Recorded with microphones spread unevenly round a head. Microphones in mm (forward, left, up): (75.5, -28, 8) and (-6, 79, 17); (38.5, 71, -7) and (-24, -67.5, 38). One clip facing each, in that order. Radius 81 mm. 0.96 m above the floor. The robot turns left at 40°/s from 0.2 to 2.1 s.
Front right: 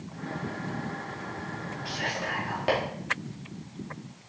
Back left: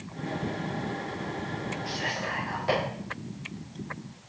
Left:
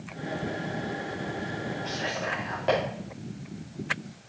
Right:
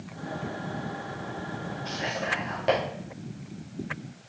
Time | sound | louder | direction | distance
1.9 | whispering | even, even | 35° right | 2.5 m